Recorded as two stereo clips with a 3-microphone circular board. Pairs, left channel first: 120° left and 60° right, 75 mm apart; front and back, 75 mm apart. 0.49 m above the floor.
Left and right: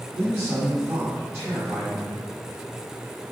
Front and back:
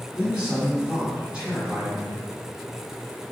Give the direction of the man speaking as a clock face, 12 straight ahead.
4 o'clock.